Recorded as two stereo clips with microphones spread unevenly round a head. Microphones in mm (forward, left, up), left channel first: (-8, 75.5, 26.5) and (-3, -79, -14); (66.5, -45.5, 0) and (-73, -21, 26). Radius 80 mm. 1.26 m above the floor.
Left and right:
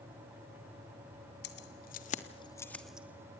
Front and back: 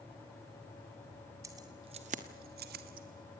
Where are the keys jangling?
100° left, 2 m; by 3.4 s 160° right, 1.9 m.